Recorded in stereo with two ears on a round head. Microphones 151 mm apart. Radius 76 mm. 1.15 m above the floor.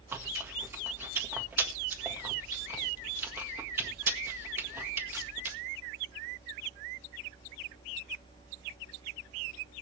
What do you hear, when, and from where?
0.1 s chewing: 15° right (ahead or behind), 1.7 m